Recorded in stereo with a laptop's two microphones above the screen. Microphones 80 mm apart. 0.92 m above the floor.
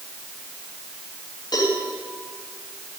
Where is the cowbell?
65° left (ahead or behind), 4 m.